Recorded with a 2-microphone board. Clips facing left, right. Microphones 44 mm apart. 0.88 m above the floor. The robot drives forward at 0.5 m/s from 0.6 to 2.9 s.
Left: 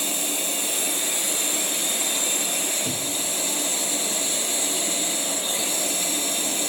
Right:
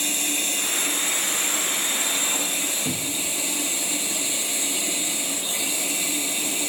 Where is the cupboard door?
25° right (ahead or behind), 1.5 m.